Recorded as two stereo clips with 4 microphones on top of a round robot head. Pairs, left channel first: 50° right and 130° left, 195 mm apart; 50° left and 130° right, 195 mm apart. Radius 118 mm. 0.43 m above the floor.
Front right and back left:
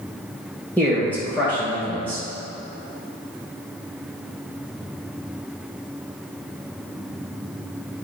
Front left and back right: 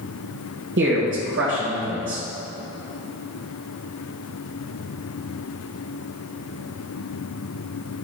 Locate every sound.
0.8 s a man speaking: 130° right, 1.7 m